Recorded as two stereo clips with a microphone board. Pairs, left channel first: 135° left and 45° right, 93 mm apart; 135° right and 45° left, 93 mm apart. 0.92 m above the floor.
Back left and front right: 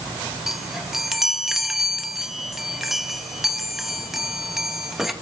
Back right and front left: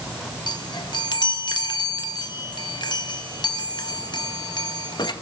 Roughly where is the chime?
Behind right.